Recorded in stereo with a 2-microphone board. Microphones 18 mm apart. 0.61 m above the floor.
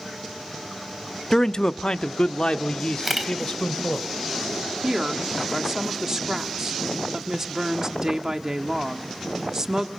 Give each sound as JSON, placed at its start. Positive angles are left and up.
{"t": 1.3, "sound": "a man speaking", "side_deg": 20, "distance_m": 0.6}
{"t": 3.0, "sound": "a camera shutter", "side_deg": -10, "distance_m": 3.5}
{"t": 4.8, "sound": "a woman speaking", "side_deg": -30, "distance_m": 1.4}